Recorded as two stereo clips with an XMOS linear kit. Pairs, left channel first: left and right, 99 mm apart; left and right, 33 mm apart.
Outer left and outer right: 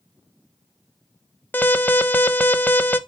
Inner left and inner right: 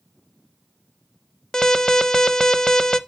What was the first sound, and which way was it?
An alarm, 20° left (ahead or behind).